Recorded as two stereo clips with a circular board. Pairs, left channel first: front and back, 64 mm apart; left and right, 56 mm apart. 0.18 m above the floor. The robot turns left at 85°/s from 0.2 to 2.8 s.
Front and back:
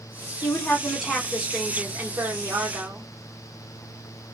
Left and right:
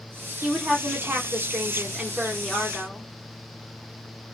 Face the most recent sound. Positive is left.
turn(degrees=130)